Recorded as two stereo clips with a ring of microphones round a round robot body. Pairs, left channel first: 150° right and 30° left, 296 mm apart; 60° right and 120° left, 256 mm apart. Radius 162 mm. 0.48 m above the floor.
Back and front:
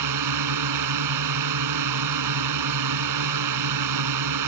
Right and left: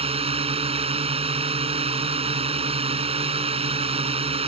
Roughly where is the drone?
Ahead left.